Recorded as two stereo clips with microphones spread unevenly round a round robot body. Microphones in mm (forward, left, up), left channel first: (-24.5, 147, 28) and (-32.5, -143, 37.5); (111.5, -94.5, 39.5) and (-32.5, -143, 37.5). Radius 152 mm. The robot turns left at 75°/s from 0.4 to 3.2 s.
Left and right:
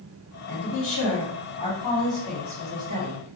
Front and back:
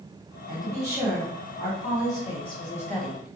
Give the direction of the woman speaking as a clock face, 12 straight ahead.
8 o'clock.